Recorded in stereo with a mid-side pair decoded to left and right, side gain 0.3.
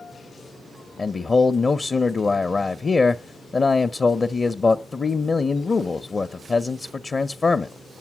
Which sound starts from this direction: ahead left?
A man speaking, at 1.0 s.